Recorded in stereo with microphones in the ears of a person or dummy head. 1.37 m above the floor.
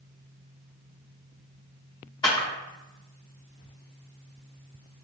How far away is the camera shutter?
About 1.5 m.